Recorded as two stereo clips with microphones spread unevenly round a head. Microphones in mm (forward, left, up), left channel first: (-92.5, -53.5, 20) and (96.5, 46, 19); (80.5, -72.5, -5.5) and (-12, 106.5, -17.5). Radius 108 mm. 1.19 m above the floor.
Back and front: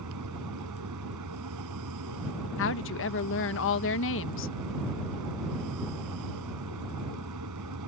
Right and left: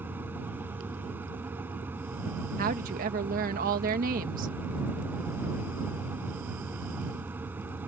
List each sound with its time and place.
0.0 s a fan: 35° left
2.6 s a woman speaking: 175° left